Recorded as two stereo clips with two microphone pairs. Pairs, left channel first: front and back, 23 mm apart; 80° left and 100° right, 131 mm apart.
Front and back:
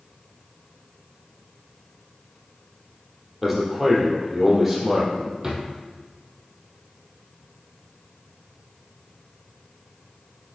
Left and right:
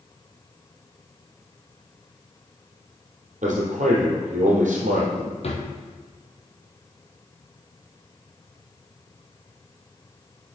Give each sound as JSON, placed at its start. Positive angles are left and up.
{"t": 3.4, "sound": "a man speaking", "azimuth_deg": -95, "distance_m": 3.5}
{"t": 5.4, "sound": "a drawer", "azimuth_deg": 115, "distance_m": 1.8}